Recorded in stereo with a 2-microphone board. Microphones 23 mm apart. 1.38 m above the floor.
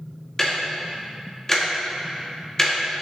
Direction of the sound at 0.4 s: 20° left (ahead or behind).